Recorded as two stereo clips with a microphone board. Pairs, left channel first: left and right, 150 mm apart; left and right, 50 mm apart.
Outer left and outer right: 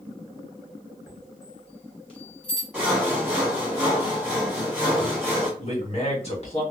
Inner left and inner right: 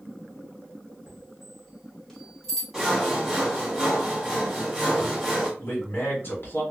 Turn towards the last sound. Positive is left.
turn(degrees=45)  # may be behind; listen again after turning